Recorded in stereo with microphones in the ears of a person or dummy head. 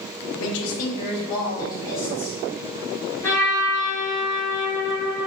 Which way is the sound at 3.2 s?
15° left (ahead or behind).